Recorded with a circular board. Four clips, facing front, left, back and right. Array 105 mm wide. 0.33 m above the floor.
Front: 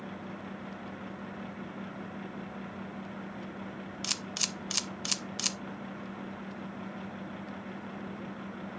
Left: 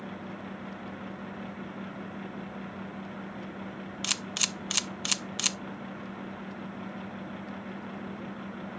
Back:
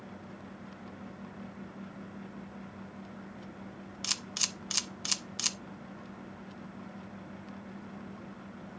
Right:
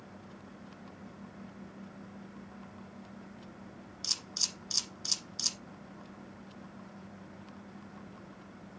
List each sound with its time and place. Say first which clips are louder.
4.0 s a camera shutter: left 11 dB, front 3 dB; 85° left, 0.5 m